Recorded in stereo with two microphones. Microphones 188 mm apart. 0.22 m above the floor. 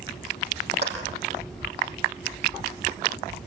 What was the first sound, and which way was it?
A clap, 70° right (ahead or behind).